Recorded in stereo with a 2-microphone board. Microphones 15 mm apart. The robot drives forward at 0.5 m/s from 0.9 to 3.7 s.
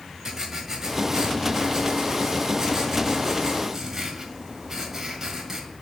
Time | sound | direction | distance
0.2 | writing | 25° right (ahead or behind) | 1.5 m